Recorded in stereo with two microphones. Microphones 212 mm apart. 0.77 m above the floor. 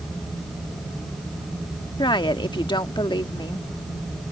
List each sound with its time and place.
2.0 s a woman speaking: 20° left (ahead or behind)